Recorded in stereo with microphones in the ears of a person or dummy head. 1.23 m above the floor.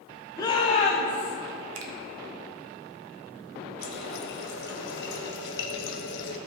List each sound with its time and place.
0.4 s a shout: 20° left (ahead or behind), 1.3 m; by 1.4 s 45° left (ahead or behind), 1.3 m
1.8 s a finger snap: 80° right, 1.0 m
3.8 s a running tap: 55° left (ahead or behind), 0.9 m